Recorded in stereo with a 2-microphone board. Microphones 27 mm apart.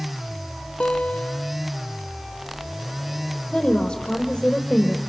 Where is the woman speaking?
30° left (ahead or behind), 4 m.